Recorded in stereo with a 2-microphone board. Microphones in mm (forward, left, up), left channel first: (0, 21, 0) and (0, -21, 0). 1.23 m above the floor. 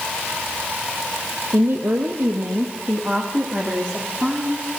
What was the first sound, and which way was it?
A woman speaking, 75° right (ahead or behind).